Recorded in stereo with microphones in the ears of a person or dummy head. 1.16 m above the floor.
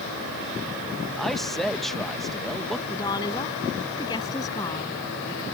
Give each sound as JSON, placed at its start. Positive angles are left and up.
{"t": 1.2, "sound": "a man speaking", "side_deg": 0}
{"t": 2.9, "sound": "a woman speaking", "side_deg": 20}